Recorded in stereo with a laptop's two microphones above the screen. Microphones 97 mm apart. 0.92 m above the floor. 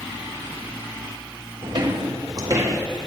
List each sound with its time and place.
1.6 s footsteps: 60° right (ahead or behind), 2.0 m; by 2.8 s 30° right (ahead or behind), 2 m